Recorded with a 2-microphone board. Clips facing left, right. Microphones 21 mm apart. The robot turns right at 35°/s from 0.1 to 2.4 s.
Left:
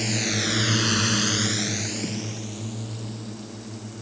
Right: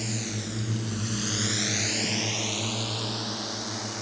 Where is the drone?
30° left (ahead or behind); by 4.0 s 65° right (ahead or behind).